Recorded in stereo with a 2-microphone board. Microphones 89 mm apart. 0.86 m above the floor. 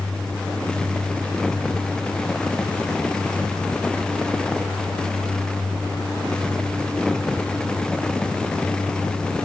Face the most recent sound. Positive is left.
No sound to turn to.